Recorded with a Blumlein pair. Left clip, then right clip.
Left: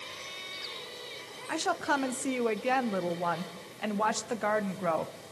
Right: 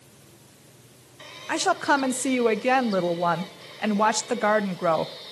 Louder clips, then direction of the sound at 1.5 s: Right 7 dB; 65° right.